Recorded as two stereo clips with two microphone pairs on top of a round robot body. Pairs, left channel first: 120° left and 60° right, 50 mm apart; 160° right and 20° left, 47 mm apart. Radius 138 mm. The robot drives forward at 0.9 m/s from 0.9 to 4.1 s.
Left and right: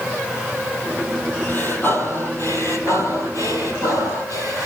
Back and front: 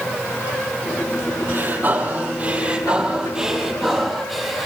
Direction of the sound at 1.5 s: 65° left.